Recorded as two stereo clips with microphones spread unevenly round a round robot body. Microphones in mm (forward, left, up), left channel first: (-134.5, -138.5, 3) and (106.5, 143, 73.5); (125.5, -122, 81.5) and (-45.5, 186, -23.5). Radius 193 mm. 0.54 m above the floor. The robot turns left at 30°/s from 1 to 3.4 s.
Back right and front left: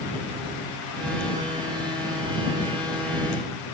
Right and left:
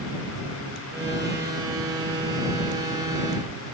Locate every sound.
Only background noise.